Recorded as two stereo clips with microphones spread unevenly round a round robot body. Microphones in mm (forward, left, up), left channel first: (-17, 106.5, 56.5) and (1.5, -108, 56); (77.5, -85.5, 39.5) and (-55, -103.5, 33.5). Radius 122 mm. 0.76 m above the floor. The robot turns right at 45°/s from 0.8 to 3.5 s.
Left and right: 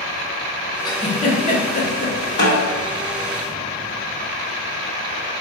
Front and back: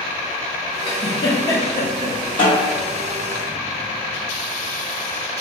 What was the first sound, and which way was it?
A giggle, 35° left.